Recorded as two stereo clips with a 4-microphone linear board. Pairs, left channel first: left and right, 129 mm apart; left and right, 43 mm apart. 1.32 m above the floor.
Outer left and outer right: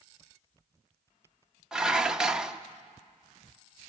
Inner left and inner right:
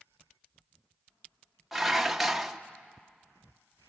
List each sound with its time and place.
1.7 s dishes clattering: 5° right (ahead or behind), 0.7 m